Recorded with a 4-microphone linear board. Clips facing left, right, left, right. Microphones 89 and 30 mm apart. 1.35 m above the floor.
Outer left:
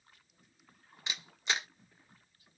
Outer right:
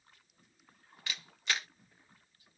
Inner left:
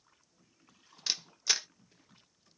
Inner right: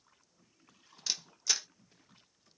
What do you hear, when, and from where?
1.1 s a camera shutter: 20° left (ahead or behind), 0.5 m